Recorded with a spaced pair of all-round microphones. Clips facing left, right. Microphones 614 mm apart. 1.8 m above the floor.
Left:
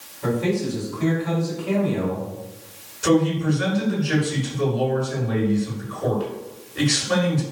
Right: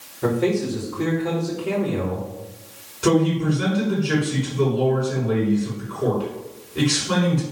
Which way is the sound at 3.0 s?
75° right (ahead or behind).